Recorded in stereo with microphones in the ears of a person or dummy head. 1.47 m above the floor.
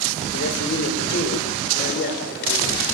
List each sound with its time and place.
0.3 s a man speaking: 70° left (ahead or behind), 4.5 m